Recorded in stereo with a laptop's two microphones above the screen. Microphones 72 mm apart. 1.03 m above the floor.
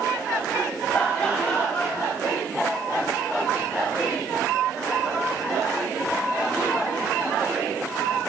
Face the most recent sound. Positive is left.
turn(degrees=20)  # may be behind; listen again after turning